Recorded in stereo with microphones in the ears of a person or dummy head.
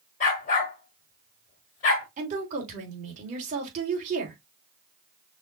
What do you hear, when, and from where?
0.2 s a dog barking: 40° left (ahead or behind), 1.7 m
2.2 s a woman speaking: 40° right (ahead or behind), 3 m